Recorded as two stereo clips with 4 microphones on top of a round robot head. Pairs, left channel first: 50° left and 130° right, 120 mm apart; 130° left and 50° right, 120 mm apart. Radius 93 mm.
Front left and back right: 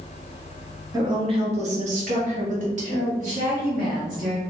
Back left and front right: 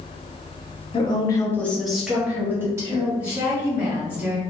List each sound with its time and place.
0.9 s a woman speaking: 170° left, 0.9 m; by 3.1 s 115° right, 1.7 m
3.2 s a woman speaking: 125° right, 1.8 m